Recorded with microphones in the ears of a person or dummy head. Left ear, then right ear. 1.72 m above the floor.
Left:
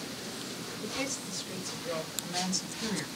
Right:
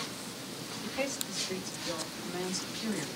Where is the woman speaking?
20° left (ahead or behind), 1.0 m; by 3.1 s 65° left (ahead or behind), 1.7 m.